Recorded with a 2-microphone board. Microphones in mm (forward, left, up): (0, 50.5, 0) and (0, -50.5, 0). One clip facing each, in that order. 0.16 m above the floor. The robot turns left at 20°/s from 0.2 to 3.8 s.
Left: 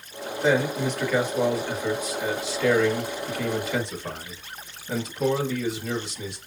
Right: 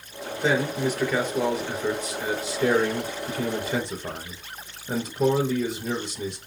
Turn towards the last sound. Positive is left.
turn(degrees=-70)